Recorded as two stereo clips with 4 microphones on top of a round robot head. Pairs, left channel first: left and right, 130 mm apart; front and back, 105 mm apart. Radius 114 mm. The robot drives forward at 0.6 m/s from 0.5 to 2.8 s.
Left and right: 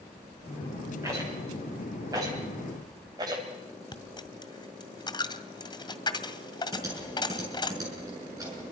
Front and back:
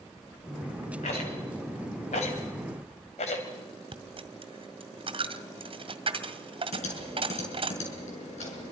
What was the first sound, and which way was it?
A rattle, 20° right.